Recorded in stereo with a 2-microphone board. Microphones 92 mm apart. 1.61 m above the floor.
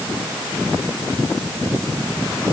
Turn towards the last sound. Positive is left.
No sound to turn to.